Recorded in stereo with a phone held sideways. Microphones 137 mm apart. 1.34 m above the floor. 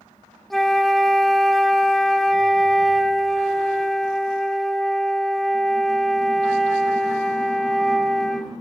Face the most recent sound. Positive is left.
turn(degrees=5)  # may be behind; listen again after turning